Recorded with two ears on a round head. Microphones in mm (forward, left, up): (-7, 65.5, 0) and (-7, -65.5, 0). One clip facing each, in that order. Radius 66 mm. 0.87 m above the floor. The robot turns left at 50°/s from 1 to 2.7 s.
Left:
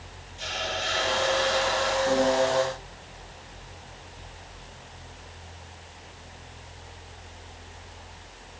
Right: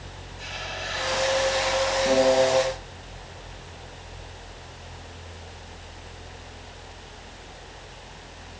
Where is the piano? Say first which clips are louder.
Right 4 dB; 80° right, 5.5 m; by 2.6 s 65° right (ahead or behind), 5.5 m.